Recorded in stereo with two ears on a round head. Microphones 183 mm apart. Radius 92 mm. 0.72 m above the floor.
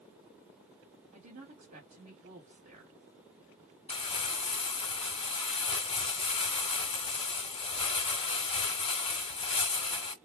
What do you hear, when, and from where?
1.1 s a woman speaking: 35° right (ahead or behind), 2 m
3.9 s crumpling: 25° left (ahead or behind), 0.9 m